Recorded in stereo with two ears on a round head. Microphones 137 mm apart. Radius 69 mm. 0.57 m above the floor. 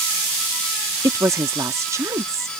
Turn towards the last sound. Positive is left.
turn(degrees=-20)  # may be behind; listen again after turning